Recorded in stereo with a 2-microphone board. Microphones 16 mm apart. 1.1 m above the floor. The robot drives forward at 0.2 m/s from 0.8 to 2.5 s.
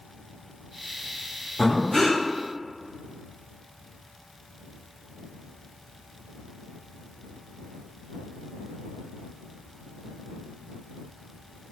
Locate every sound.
1.6 s breathing: 25° left (ahead or behind), 0.7 m